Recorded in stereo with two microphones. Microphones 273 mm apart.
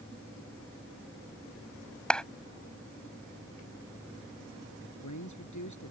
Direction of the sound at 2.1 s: 5° left (ahead or behind).